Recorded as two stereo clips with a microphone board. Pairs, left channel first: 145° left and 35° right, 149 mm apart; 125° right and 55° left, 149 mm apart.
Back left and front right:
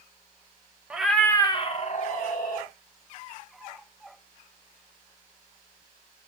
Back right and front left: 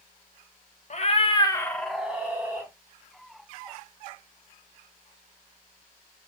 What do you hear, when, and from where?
0.9 s a cat meowing: 115° right, 0.6 m; by 2.7 s 125° left, 1.0 m